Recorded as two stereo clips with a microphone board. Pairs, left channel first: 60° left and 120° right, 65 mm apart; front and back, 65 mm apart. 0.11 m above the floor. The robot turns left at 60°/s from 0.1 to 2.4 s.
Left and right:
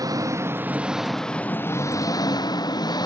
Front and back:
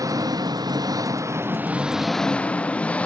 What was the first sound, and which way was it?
An engine running, 150° right.